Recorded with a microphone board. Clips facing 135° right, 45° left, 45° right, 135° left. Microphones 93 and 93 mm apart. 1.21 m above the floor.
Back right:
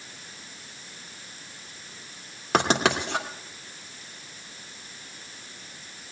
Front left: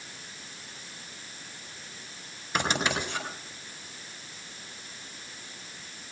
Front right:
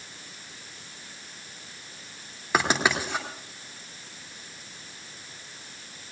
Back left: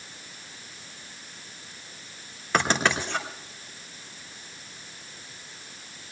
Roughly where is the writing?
Behind right.